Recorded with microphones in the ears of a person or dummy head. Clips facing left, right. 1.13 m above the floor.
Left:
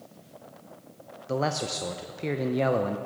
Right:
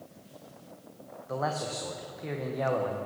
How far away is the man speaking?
About 0.7 m.